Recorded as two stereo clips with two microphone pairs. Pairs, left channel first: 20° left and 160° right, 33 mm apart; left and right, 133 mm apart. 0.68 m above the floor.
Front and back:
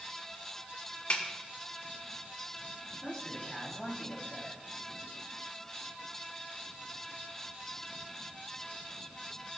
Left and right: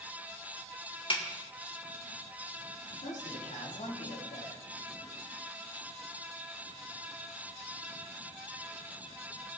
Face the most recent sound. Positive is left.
turn(degrees=105)